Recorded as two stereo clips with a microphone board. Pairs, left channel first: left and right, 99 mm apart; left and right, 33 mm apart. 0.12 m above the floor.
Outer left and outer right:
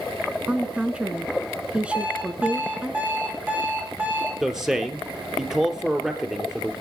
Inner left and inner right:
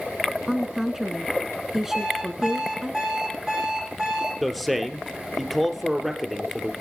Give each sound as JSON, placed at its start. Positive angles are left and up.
{"t": 0.5, "sound": "a woman speaking", "side_deg": -10, "distance_m": 1.2}
{"t": 1.9, "sound": "an alarm clock", "side_deg": -15, "distance_m": 4.0}
{"t": 4.4, "sound": "a man speaking", "side_deg": -5, "distance_m": 2.0}